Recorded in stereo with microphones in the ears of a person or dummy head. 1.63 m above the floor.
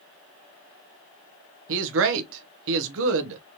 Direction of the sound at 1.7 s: 75° right (ahead or behind).